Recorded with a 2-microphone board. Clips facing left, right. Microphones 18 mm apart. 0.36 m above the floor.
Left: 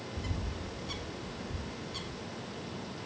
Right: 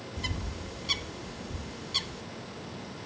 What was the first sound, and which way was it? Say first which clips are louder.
A bird: right 6 dB; 50° right (ahead or behind).